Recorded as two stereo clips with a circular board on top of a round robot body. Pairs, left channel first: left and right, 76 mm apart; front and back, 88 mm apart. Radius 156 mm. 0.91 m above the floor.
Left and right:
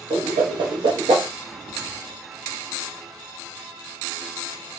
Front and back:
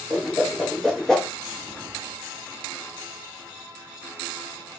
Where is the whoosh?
85° right, 0.6 m.